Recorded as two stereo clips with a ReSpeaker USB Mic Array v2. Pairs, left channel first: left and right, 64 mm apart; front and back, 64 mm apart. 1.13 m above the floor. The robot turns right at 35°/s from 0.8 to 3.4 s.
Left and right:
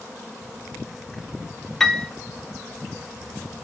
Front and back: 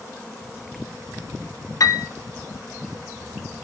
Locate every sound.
1.8 s a piano: 5° left, 0.5 m; by 2.1 s 15° left, 0.5 m